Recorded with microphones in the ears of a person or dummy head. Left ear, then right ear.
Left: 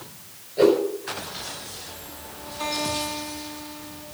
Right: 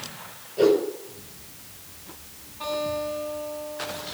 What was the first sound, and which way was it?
A whoosh, 30° left (ahead or behind).